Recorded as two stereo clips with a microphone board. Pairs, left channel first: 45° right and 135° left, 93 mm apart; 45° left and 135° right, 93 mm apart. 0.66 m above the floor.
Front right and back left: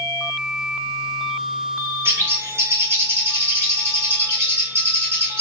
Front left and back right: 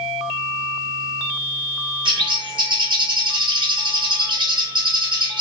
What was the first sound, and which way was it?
A bird, 165° right.